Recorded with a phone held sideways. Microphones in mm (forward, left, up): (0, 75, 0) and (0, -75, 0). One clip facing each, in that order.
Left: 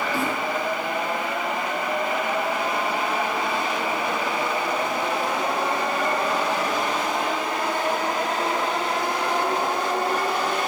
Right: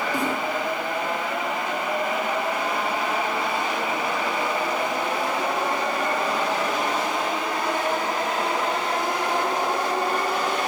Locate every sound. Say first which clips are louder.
0.1 s a snare drum: right 1 dB; 15° right (ahead or behind), 9 m